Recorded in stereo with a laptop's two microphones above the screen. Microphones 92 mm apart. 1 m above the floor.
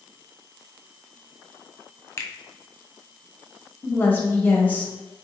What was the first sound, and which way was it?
A finger snap, 30° left (ahead or behind).